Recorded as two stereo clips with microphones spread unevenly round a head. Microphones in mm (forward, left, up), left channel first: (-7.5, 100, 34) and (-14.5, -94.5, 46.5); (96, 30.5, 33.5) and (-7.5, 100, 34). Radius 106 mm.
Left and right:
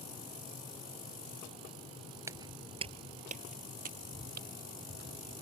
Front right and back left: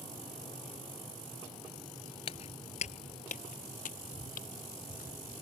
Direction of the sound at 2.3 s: 25° right.